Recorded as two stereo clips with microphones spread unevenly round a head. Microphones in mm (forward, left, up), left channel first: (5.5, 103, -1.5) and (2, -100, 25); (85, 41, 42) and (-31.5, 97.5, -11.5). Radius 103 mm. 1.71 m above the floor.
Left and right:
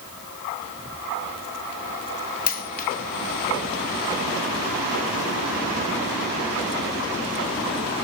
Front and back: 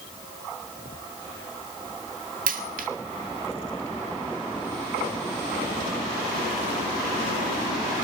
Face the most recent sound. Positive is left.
turn(degrees=140)